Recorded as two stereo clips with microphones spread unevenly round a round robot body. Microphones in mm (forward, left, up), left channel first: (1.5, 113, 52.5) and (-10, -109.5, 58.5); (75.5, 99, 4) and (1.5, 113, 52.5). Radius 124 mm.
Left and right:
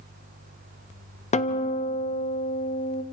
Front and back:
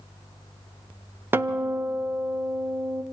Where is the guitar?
70° left, 0.9 m.